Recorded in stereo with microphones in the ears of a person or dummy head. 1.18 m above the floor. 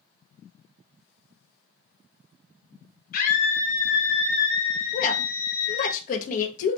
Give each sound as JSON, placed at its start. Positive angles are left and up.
{"t": 3.1, "sound": "a scream", "side_deg": 45, "distance_m": 0.9}
{"t": 4.9, "sound": "a woman speaking", "side_deg": 45, "distance_m": 1.0}